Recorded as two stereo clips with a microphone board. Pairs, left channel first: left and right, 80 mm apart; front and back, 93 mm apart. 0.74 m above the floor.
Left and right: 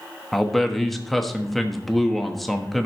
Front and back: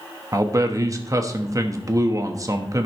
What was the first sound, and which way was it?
A man speaking, 175° left.